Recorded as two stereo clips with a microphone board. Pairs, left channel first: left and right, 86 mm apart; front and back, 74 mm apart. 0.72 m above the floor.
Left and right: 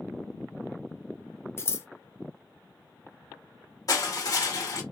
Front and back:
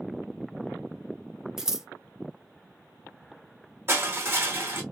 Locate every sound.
1.6 s scissors: 105° left, 0.6 m
3.9 s crushing: 125° left, 1.3 m